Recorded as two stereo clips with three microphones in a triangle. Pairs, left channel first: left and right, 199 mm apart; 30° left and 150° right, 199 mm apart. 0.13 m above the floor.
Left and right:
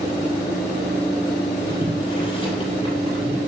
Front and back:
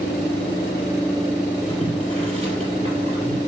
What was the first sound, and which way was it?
Boiling, 155° left.